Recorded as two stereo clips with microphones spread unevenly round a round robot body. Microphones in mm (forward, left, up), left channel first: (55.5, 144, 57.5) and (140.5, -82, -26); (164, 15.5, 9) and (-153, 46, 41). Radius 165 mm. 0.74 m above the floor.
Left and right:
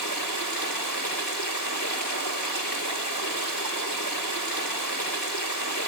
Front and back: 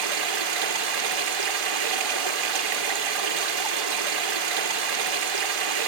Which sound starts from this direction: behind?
Running water, at 0.0 s.